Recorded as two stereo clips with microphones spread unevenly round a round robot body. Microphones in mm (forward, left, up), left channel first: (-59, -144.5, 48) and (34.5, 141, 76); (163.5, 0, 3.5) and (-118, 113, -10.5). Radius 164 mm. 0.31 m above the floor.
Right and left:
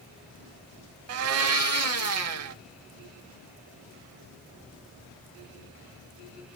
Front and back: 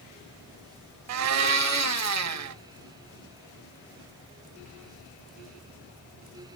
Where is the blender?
115° left, 0.5 m.